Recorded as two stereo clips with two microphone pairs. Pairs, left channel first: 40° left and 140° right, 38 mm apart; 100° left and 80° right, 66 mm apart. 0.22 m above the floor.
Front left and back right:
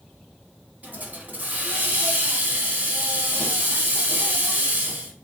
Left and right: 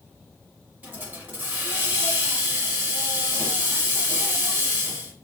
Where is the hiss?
125° right, 1.1 m.